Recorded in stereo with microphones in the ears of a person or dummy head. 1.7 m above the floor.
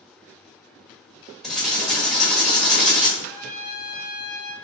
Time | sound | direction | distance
1.4 | writing | 5° left (ahead or behind) | 1.3 m
3.2 | a trumpet | 15° left (ahead or behind) | 1.1 m